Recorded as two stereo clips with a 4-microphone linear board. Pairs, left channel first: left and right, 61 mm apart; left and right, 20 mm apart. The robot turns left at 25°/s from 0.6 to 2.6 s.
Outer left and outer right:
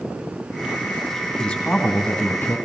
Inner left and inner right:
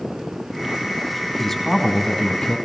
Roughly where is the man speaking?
Centre.